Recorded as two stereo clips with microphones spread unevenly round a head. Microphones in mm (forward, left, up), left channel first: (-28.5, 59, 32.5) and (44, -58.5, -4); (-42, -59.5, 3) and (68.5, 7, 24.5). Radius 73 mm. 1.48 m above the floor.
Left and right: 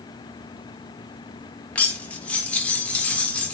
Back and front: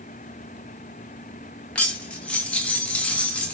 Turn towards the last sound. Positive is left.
turn(degrees=115)